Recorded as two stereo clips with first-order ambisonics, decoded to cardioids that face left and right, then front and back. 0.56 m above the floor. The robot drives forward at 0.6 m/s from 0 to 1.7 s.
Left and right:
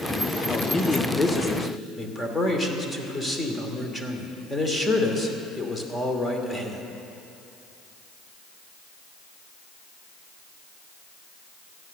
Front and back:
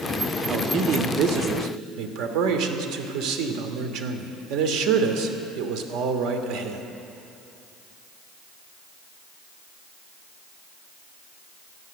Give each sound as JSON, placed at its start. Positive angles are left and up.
{"t": 0.5, "sound": "a man speaking", "azimuth_deg": 150, "distance_m": 0.8}